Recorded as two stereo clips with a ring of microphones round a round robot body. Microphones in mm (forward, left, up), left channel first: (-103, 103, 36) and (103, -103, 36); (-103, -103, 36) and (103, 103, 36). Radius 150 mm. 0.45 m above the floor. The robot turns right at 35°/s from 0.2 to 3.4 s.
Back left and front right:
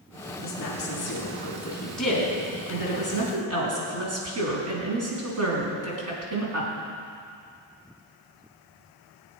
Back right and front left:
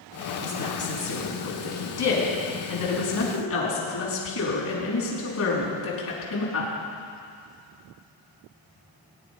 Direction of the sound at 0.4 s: 170° left.